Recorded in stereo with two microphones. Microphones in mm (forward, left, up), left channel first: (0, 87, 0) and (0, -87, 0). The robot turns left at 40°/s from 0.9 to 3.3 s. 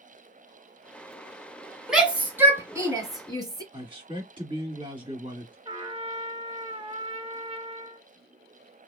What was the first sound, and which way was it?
A shout, 5° right (ahead or behind).